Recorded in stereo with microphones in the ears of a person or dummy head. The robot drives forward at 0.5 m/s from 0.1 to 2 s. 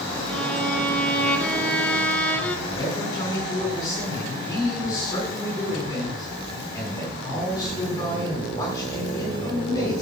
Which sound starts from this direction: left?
A man speaking, at 2.7 s.